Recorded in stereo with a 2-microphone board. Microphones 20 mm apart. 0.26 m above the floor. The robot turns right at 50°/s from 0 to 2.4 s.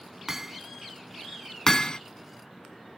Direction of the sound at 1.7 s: 35° left (ahead or behind).